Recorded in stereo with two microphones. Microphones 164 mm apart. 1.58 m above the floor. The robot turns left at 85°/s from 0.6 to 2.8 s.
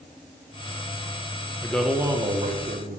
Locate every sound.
1.6 s a man speaking: 20° left, 0.9 m; by 3.0 s 80° right, 0.9 m